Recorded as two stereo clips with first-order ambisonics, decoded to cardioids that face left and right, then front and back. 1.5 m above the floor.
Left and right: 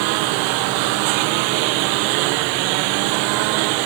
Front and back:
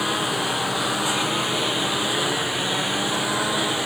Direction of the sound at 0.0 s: 85° right.